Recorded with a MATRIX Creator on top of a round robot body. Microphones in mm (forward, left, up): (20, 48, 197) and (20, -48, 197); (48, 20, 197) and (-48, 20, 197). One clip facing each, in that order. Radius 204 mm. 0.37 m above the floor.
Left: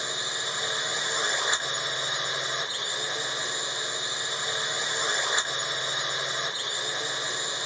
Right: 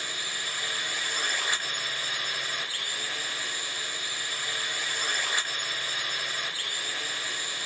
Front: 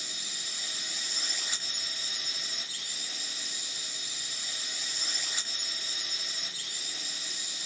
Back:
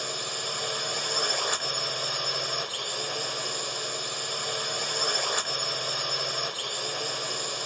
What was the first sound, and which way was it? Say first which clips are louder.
A drone: left 3 dB, back 13 dB; 160° left.